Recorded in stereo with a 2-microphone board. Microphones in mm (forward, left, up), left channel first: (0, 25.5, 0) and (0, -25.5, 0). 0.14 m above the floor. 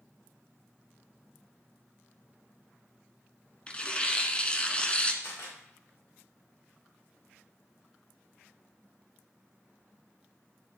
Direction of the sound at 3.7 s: 25° left (ahead or behind).